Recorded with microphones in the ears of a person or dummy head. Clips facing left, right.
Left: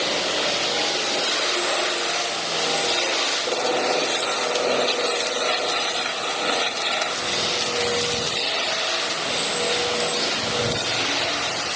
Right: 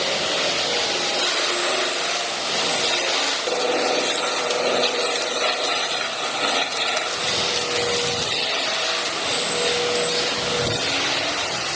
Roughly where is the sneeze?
I don't hear a sneeze.